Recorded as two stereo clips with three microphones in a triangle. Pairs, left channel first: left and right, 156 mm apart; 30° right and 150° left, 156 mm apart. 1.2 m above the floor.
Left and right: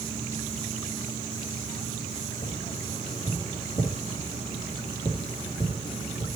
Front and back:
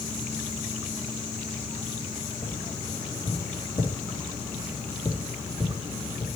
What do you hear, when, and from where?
2.4 s tapping: 35° left, 2.5 m